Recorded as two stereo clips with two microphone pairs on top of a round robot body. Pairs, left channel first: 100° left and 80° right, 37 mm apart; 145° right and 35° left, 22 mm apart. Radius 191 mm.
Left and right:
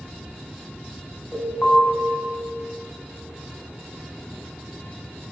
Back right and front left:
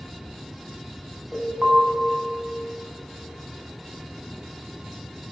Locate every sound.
1.3 s an alarm: 70° left, 7.5 m